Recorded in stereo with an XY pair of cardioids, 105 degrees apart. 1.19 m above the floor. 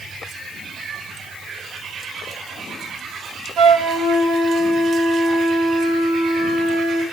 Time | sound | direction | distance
3.6 | a flute | 60° right | 0.8 m